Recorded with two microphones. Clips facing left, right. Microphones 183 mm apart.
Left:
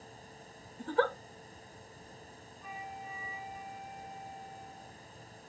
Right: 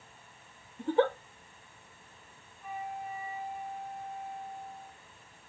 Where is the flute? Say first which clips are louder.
Right 6 dB; 55° right (ahead or behind), 1.7 m.